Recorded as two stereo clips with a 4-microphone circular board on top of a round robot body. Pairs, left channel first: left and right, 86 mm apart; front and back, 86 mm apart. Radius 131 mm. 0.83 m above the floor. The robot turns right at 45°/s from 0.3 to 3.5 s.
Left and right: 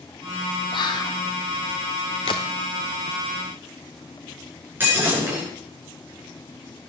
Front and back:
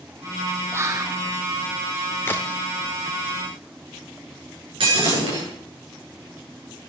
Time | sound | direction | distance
0.7 | whispering | 115° left | 1.1 m
2.2 | a crack | 60° left | 0.5 m
4.8 | breaking glass | 160° right | 9 m